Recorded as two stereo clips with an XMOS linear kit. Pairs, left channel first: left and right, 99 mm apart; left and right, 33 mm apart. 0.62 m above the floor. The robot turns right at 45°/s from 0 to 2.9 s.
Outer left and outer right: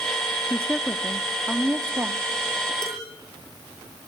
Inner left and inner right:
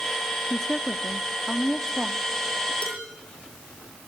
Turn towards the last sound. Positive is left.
turn(degrees=55)  # may be behind; listen again after turning